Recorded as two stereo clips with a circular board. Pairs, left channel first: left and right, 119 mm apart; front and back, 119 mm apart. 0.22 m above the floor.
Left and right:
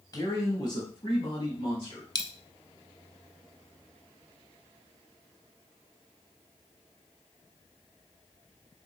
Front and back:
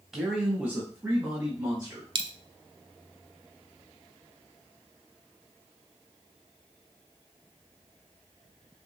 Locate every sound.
0.1 s a man speaking: 95° left, 1.2 m; by 2.0 s 120° left, 1.8 m
2.1 s a dropped coin: 140° left, 0.6 m